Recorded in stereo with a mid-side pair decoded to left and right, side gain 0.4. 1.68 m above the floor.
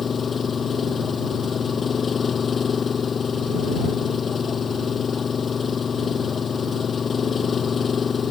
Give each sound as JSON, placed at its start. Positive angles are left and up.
{"t": 0.0, "sound": "an engine running", "azimuth_deg": 45}